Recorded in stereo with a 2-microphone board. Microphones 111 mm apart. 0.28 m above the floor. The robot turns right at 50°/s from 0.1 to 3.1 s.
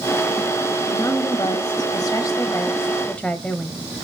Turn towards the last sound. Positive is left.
turn(degrees=160)